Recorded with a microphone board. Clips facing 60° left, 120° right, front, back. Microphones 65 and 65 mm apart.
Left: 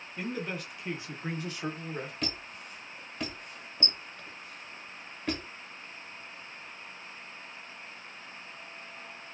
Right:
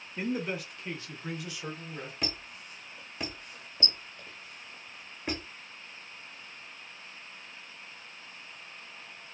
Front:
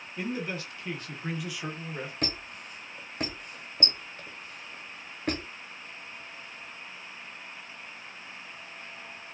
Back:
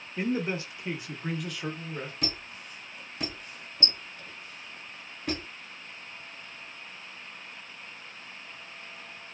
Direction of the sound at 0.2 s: 170° right.